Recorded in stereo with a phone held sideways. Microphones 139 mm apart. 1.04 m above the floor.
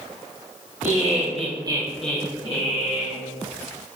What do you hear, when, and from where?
0.8 s laughter: 65° right (ahead or behind), 1.6 m; by 3.2 s 60° left (ahead or behind), 1.7 m